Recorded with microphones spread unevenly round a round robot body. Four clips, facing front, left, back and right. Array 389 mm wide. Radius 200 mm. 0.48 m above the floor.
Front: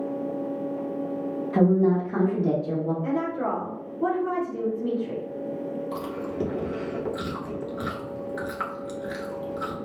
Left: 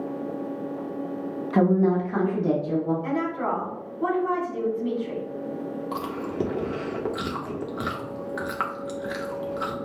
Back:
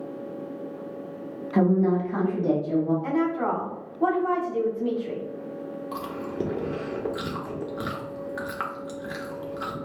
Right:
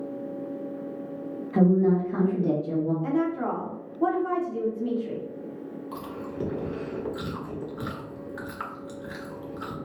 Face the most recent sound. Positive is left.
turn(degrees=80)